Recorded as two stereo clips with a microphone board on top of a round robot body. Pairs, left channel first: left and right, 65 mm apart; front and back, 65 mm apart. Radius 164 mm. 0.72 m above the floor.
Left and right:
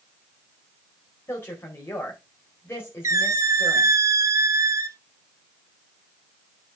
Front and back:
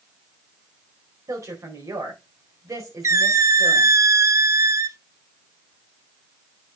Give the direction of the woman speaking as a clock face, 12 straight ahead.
7 o'clock.